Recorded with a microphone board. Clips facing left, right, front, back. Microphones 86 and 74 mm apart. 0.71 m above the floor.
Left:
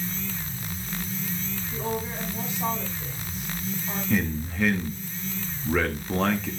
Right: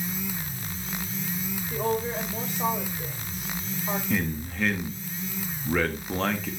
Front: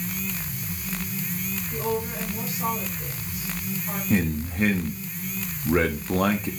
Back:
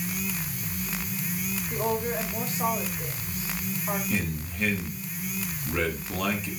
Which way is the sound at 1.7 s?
125° right.